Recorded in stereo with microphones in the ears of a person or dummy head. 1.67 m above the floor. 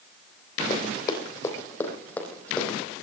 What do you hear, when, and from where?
0.7 s running footsteps: 30° left (ahead or behind), 3.5 m; by 2.8 s 5° left (ahead or behind), 4.5 m